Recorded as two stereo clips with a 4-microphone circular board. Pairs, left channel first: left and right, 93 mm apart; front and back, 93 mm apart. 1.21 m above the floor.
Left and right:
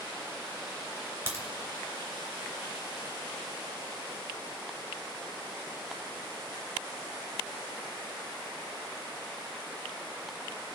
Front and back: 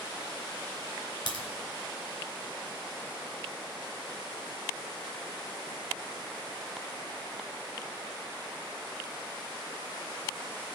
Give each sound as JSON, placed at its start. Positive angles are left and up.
{"t": 1.3, "sound": "a crack", "azimuth_deg": -30, "distance_m": 2.5}